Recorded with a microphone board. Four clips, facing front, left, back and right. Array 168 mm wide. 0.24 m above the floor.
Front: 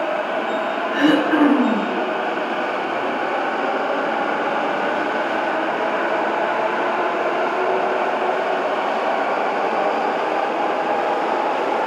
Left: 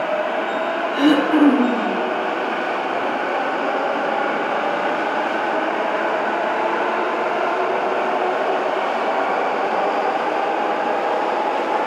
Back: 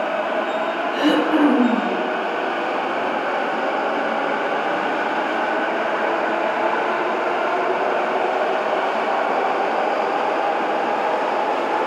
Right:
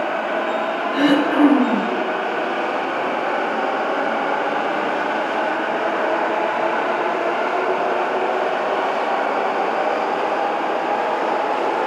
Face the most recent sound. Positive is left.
turn(degrees=-25)